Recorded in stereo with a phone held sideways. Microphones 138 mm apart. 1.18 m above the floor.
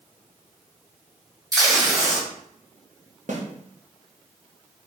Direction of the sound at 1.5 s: 30° right (ahead or behind).